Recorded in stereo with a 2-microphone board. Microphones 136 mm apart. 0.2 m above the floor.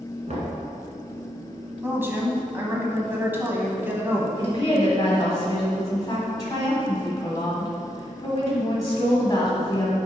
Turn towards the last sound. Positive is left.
turn(degrees=30)  # may be behind; listen again after turning